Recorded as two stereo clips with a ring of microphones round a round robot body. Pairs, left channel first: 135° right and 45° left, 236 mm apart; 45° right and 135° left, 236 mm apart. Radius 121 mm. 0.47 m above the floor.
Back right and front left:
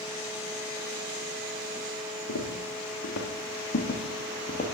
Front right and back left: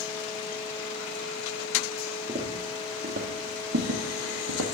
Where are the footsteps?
155° right, 2 m; by 4.7 s 165° left, 1.9 m.